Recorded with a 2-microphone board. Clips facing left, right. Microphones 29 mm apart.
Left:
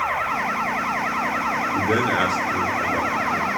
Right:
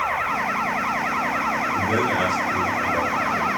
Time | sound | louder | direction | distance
1.7 | a man speaking | left 3 dB | 65° left (ahead or behind) | 4 m